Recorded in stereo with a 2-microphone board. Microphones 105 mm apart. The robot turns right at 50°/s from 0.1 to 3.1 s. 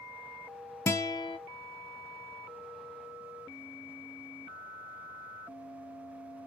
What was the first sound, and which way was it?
A guitar, 25° left (ahead or behind).